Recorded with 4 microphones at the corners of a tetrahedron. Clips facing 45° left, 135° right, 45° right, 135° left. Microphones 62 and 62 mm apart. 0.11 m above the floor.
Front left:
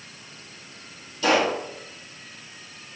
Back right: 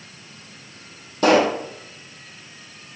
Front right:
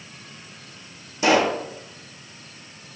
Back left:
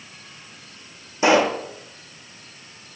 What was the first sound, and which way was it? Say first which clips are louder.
A pop: back right 5 dB, back left 2 dB; 160° right.